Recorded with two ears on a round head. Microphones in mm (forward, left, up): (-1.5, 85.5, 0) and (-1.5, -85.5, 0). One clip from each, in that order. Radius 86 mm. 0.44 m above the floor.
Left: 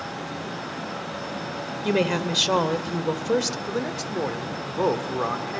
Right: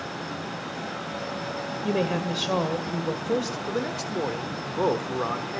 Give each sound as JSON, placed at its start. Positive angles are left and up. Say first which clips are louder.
{"t": 1.8, "sound": "a woman speaking", "louder": "left 4 dB", "side_deg": 45, "distance_m": 1.6}
{"t": 3.7, "sound": "a man speaking", "louder": "left 1 dB", "side_deg": 5, "distance_m": 1.0}